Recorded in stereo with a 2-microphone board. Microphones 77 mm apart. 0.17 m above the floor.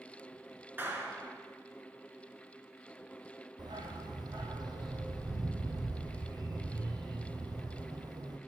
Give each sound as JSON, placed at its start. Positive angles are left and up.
{"t": 0.8, "sound": "a clap", "side_deg": -30, "distance_m": 2.0}
{"t": 3.6, "sound": "a dog barking", "side_deg": -70, "distance_m": 1.9}